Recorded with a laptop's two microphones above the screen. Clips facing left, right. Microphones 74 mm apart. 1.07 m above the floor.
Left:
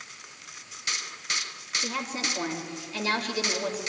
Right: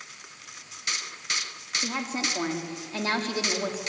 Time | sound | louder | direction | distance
1.8 | a woman speaking | right 1 dB | 35° right (ahead or behind) | 2.5 m